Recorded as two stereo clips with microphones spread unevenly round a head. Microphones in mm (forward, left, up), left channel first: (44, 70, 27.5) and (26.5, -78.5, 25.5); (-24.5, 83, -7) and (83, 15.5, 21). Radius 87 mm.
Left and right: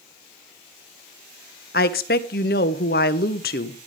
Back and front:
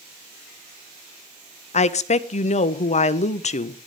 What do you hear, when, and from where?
1.7 s a woman speaking: 120° left, 1.0 m